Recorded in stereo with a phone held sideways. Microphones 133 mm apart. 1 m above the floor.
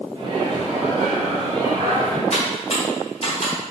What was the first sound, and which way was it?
A microwave, 40° right (ahead or behind).